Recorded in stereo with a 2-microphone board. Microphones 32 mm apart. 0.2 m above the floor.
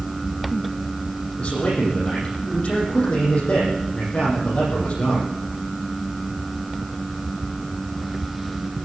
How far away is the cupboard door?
No cupboard door in this recording.